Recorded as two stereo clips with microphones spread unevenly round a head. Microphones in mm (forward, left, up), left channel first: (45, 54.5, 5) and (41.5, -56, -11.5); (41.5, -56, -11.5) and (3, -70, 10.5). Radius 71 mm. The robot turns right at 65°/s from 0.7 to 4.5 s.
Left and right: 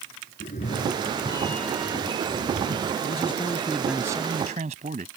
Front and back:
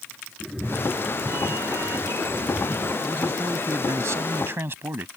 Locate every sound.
0.4 s a cat meowing: 110° left; by 2.9 s 100° right
3.0 s a man speaking: 125° left; by 5.1 s 140° right